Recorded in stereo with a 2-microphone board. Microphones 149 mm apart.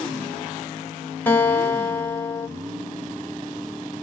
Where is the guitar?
15° left (ahead or behind), 1.0 m.